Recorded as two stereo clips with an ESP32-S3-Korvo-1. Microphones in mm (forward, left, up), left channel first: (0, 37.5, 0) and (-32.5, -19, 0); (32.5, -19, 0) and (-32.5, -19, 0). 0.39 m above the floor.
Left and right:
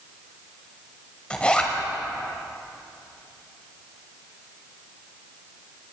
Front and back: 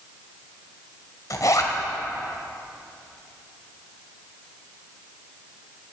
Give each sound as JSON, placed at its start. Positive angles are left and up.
{"t": 1.3, "sound": "a zipper", "azimuth_deg": -10, "distance_m": 1.4}